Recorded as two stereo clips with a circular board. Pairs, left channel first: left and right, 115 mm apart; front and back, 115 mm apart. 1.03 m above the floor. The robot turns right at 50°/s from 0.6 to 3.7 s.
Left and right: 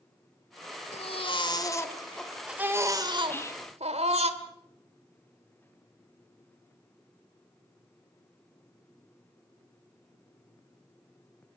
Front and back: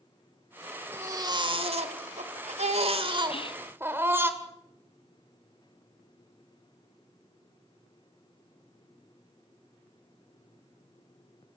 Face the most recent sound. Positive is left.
turn(degrees=40)